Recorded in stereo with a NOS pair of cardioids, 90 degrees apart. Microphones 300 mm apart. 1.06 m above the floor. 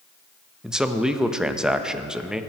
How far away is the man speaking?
About 0.8 m.